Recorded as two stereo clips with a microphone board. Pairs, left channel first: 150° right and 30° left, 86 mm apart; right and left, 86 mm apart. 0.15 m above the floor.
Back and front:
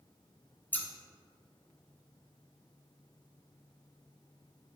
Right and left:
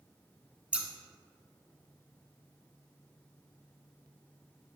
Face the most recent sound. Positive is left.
turn(degrees=160)